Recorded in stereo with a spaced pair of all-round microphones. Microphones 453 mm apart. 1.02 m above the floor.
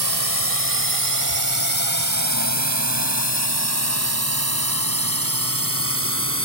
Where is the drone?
55° right (ahead or behind); by 6.5 s 30° right (ahead or behind).